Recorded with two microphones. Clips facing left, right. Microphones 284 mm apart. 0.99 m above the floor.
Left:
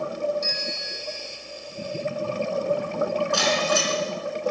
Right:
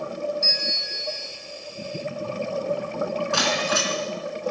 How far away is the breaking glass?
About 3.5 m.